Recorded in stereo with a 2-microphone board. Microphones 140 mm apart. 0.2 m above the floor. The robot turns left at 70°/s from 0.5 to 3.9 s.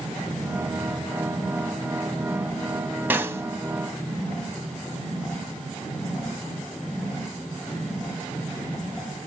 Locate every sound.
3.1 s a snare drum: 15° right (ahead or behind), 0.5 m; by 3.4 s 20° right (ahead or behind), 0.5 m